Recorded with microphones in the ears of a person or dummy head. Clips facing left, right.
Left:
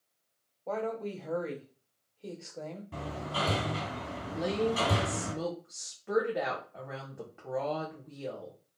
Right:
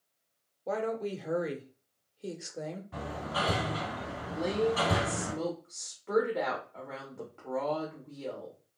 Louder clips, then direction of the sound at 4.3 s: Right 1 dB; 5° left (ahead or behind).